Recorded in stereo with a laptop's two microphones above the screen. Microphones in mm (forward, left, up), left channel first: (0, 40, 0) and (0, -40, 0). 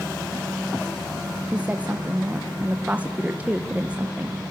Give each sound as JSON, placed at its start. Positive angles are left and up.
{"t": 1.5, "sound": "a woman speaking", "side_deg": -20, "distance_m": 0.8}